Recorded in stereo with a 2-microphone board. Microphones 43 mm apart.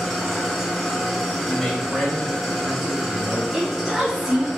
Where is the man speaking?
10° left (ahead or behind), 2 m.